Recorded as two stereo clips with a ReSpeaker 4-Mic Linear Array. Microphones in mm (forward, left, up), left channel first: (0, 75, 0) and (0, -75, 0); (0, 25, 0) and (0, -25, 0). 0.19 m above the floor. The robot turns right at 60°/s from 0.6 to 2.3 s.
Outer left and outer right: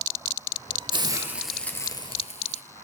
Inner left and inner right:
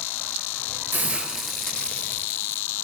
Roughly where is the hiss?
Ahead right.